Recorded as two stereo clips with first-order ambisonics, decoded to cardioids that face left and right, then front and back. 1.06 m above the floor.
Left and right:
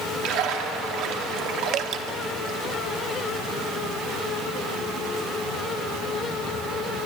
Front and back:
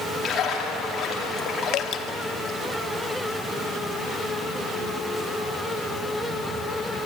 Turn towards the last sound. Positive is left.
turn(degrees=-45)